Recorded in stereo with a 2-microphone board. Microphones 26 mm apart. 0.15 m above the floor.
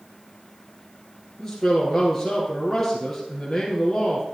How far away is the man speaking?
About 3 m.